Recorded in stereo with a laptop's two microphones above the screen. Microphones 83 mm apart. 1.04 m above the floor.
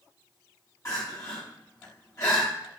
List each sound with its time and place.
0.8 s crying: 40° left (ahead or behind), 1.5 m